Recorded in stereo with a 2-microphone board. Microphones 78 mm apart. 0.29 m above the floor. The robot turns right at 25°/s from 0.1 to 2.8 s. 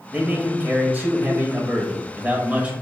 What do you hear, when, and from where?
0.1 s a man speaking: 20° right (ahead or behind), 0.9 m